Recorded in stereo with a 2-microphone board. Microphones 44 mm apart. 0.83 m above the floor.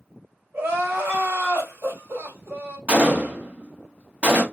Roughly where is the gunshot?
Right.